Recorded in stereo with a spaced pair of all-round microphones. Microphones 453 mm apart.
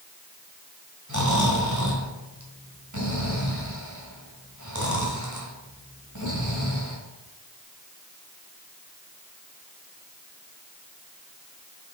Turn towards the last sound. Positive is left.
turn(degrees=-40)  # may be behind; listen again after turning